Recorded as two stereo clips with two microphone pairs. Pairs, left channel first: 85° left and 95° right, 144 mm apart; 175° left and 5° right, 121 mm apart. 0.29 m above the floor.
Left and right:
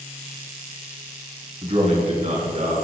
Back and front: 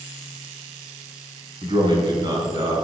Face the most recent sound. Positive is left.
turn(degrees=-60)